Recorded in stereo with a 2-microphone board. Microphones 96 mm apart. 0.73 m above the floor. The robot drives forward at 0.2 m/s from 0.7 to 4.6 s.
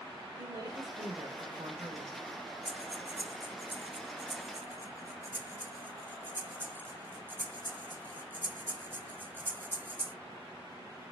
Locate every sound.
0.4 s a woman speaking: 65° right (ahead or behind), 2.5 m; by 2.2 s 70° right (ahead or behind), 2.5 m
2.6 s breathing: 15° right (ahead or behind), 0.9 m; by 10.2 s 20° right (ahead or behind), 0.7 m